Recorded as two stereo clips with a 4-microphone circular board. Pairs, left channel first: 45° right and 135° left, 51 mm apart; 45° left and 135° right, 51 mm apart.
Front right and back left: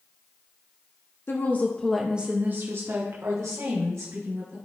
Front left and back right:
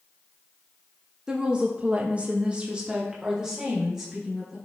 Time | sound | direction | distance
1.3 | a woman speaking | 60° right | 0.9 m